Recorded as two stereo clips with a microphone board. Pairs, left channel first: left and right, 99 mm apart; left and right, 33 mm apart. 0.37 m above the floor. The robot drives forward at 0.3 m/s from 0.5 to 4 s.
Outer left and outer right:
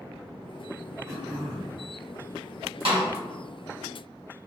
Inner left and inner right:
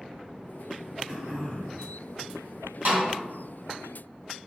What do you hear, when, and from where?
1.1 s throat clearing: 30° right (ahead or behind), 1.7 m; by 1.8 s 35° right (ahead or behind), 1.7 m
2.9 s a snare drum: 70° right (ahead or behind), 1.7 m